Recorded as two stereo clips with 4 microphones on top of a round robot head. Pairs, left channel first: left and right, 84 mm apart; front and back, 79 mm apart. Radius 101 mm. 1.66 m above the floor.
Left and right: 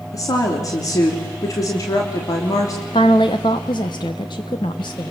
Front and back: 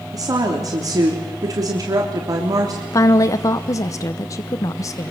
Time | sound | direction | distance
0.1 | a woman speaking | 135° left | 3.5 m
2.9 | a woman speaking | 40° left | 0.9 m